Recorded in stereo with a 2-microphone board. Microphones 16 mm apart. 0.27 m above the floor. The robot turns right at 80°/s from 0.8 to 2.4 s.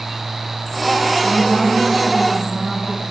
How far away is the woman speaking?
About 1.9 m.